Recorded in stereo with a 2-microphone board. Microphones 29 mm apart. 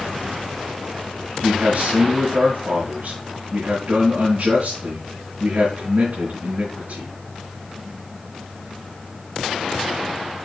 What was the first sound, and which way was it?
A man speaking, 75° right (ahead or behind).